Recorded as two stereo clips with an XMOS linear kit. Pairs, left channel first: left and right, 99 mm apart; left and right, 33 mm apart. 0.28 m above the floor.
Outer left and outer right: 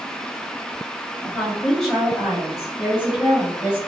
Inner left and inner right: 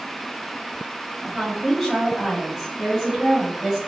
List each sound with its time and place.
1.2 s a woman speaking: 15° left (ahead or behind), 1.1 m; by 3.8 s 15° right (ahead or behind), 2.5 m